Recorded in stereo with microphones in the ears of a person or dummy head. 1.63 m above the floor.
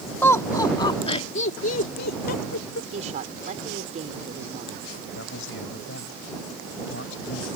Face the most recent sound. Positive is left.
turn(degrees=80)